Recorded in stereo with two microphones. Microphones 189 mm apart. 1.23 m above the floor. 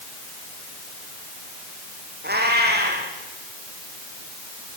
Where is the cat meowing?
60° right (ahead or behind), 6 m.